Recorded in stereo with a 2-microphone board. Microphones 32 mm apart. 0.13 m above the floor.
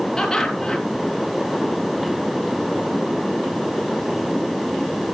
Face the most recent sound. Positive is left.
turn(degrees=20)  # may be behind; listen again after turning